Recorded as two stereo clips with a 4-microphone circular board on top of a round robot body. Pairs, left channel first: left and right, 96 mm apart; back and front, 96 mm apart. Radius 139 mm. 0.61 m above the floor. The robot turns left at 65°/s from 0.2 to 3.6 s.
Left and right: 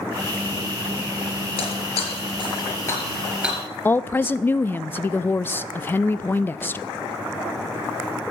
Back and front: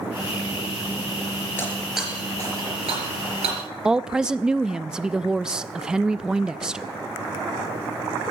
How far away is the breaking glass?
About 4 m.